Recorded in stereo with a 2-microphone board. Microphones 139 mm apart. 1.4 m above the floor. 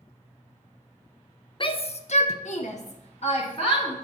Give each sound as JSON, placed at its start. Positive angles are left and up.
{"t": 1.6, "sound": "a shout", "side_deg": 35, "distance_m": 0.6}